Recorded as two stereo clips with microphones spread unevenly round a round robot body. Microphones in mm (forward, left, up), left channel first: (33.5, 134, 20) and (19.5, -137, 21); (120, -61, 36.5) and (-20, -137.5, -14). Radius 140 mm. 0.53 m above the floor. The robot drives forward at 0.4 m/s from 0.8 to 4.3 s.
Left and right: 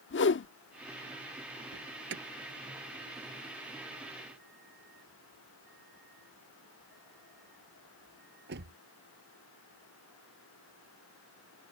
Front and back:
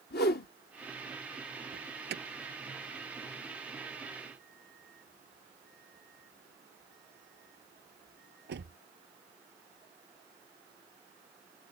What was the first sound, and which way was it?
A whoosh, 60° left.